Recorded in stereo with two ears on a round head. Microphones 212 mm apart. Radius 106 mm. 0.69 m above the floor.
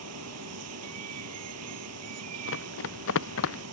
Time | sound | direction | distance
0.0 | running water | 70° right (ahead or behind) | ?
2.5 | running footsteps | 55° left (ahead or behind) | ?